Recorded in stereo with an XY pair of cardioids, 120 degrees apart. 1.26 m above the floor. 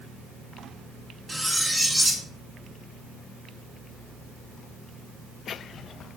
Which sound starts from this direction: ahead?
Cutlery clinking, at 1.3 s.